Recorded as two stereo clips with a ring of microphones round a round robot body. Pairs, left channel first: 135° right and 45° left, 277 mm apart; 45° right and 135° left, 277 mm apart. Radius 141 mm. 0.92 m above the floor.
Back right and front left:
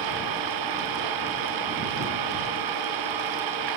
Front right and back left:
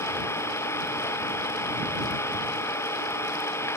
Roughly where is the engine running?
Ahead left.